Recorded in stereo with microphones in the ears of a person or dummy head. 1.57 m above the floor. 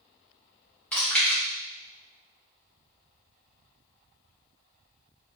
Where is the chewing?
10° left (ahead or behind), 1.6 m.